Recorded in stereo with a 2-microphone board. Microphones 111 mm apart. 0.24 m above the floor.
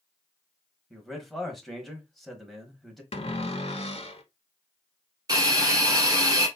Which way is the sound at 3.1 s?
65° left (ahead or behind).